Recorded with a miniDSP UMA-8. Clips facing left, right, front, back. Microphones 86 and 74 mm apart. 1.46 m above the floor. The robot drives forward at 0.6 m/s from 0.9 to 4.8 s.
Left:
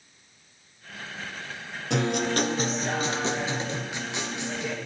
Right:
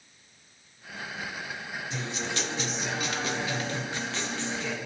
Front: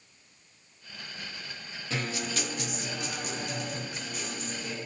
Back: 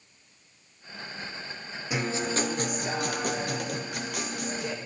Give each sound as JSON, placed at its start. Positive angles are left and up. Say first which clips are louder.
{"t": 1.9, "sound": "a guitar", "louder": "left 11 dB, back 5 dB", "azimuth_deg": 105, "distance_m": 0.5}